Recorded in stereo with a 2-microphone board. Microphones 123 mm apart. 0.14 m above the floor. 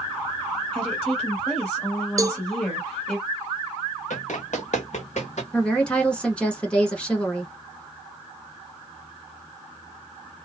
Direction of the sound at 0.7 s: 10° left (ahead or behind).